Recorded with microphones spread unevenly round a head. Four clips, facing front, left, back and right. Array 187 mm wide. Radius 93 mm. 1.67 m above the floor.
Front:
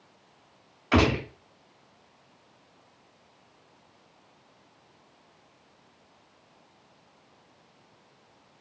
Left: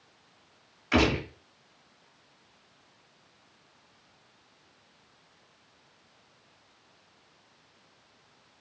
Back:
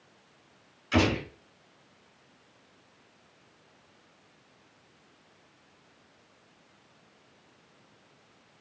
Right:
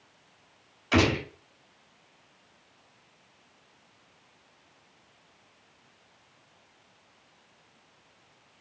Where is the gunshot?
15° right, 3.5 m.